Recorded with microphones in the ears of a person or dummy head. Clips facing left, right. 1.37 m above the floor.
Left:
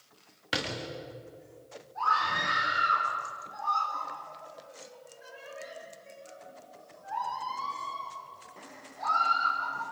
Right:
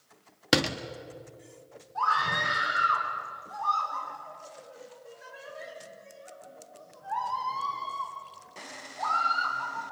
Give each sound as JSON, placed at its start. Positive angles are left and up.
{"t": 0.5, "sound": "a door slam", "side_deg": -60, "distance_m": 1.2}
{"t": 1.9, "sound": "a scream", "side_deg": -60, "distance_m": 6.0}